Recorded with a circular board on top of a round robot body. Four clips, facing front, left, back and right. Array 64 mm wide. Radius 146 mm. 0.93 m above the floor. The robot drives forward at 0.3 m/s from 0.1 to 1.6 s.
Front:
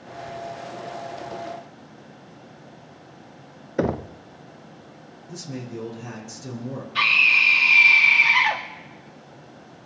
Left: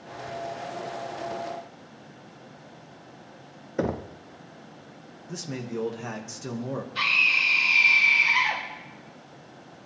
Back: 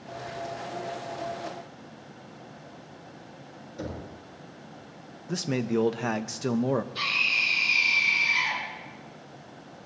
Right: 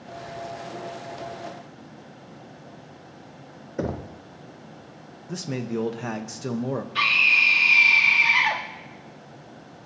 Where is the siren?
No siren in this recording.